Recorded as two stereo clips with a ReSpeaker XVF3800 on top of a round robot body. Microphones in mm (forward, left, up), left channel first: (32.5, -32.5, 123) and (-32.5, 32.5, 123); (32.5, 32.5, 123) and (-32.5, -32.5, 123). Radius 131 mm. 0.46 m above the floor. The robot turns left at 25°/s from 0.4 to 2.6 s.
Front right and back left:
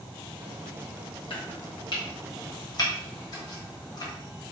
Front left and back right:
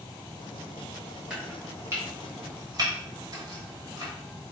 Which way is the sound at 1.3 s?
55° right.